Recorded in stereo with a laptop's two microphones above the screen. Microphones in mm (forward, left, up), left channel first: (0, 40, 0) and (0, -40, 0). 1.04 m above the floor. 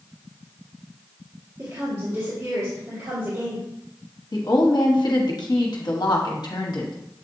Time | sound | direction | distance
1.6 | a woman speaking | 45° right (ahead or behind) | 1.8 m
4.3 | a woman speaking | 65° left (ahead or behind) | 1.1 m